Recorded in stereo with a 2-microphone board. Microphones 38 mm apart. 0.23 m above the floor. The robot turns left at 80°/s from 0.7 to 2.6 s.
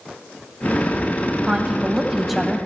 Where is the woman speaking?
20° right (ahead or behind), 1.0 m; by 2.6 s centre (ahead or behind), 1.0 m.